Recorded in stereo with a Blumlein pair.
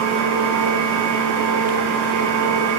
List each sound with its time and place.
0.0 s a machine running: 45° right, 0.7 m